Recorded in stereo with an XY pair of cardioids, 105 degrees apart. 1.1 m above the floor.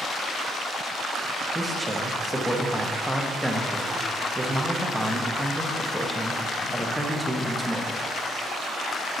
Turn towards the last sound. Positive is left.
turn(degrees=0)